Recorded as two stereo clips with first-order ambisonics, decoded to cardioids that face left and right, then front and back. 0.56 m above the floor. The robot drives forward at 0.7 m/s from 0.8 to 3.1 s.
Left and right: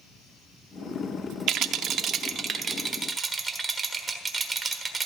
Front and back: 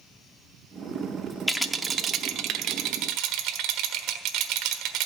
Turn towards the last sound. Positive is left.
turn(degrees=-160)